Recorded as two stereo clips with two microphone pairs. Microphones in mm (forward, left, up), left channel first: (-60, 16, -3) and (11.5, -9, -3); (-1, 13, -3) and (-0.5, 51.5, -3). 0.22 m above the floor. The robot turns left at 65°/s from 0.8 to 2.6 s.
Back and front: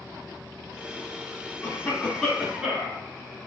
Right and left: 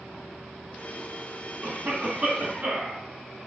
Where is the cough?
120° left, 1.2 m; by 3.0 s 55° left, 1.2 m.